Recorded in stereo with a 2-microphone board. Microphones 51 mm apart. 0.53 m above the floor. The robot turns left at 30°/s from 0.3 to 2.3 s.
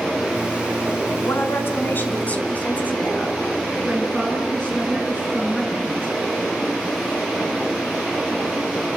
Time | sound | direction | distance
1.2 | a woman speaking | 65° left | 4.5 m
3.9 | a woman speaking | 10° left (ahead or behind) | 7 m